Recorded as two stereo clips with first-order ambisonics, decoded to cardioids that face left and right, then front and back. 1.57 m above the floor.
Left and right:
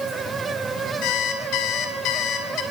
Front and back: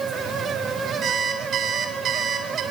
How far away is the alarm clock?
About 3.5 m.